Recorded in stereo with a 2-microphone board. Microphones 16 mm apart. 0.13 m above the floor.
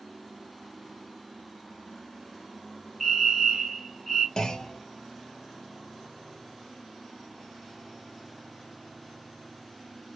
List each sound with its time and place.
3.0 s a fire alarm: centre (ahead or behind), 2 m
4.4 s a clunk: 45° left (ahead or behind), 1.0 m